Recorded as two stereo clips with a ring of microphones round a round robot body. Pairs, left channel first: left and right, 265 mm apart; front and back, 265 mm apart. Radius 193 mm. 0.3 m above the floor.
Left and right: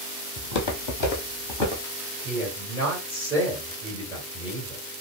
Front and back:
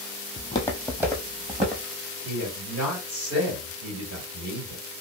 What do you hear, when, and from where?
0.4 s footsteps: 65° left, 0.9 m; by 1.8 s 115° left, 1.6 m
2.2 s a man speaking: 175° right, 2.0 m